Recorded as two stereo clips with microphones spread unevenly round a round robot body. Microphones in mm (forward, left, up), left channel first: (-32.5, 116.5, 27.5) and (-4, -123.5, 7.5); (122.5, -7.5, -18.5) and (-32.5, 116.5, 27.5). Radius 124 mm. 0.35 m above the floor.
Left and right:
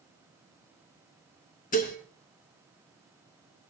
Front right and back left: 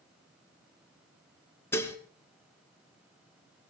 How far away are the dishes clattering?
About 2.5 m.